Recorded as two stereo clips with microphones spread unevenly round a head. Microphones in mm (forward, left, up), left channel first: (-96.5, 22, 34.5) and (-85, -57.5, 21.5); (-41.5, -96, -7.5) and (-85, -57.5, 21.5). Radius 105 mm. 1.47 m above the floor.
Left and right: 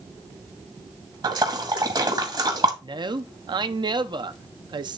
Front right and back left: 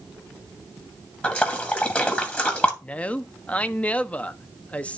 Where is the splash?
110° right, 2.5 m.